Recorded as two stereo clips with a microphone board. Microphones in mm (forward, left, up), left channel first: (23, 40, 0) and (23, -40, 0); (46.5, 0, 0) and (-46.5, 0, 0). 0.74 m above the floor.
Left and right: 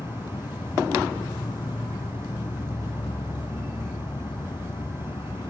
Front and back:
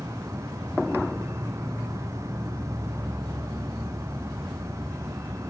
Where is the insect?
120° left.